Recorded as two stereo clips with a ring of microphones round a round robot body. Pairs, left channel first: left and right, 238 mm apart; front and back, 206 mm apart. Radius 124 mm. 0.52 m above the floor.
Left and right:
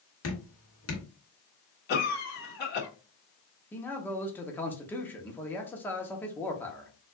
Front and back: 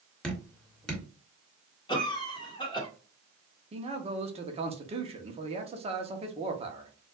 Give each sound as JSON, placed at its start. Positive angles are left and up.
{"t": 0.2, "sound": "dripping", "azimuth_deg": 85, "distance_m": 2.5}
{"t": 1.9, "sound": "a cough", "azimuth_deg": 60, "distance_m": 1.4}
{"t": 3.7, "sound": "a man speaking", "azimuth_deg": 165, "distance_m": 0.9}